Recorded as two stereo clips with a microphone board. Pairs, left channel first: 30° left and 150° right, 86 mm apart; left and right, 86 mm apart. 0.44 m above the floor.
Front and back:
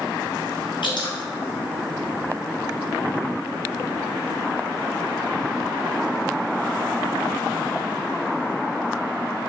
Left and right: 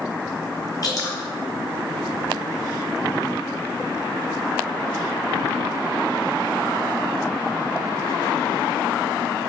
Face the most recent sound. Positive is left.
turn(degrees=45)